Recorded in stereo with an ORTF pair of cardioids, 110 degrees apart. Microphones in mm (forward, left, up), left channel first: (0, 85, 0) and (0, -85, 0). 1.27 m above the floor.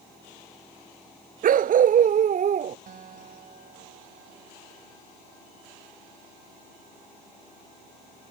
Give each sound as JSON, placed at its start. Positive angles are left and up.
{"t": 1.4, "sound": "a dog barking", "azimuth_deg": -55}
{"t": 2.9, "sound": "a guitar", "azimuth_deg": -50}